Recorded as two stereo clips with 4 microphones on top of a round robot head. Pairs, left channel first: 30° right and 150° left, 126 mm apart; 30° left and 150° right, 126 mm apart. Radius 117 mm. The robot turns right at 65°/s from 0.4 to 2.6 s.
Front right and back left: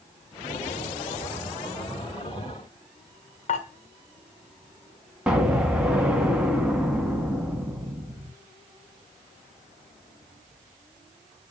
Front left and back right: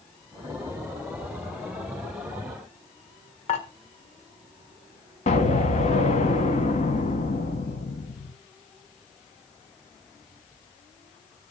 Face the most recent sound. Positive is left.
turn(degrees=65)